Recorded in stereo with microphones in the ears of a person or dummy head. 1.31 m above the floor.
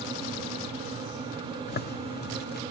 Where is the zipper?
45° left (ahead or behind), 0.9 m.